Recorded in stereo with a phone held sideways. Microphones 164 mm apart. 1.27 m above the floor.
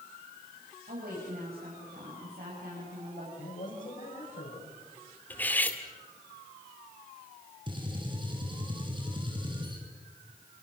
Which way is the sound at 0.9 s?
80° right.